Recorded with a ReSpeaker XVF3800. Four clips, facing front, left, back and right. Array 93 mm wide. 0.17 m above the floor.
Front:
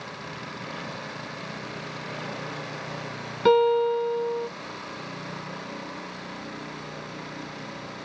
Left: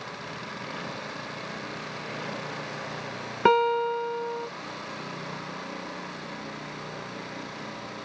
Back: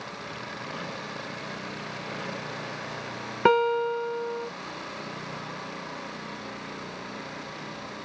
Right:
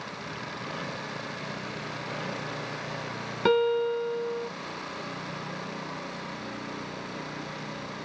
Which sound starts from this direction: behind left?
A guitar, at 3.5 s.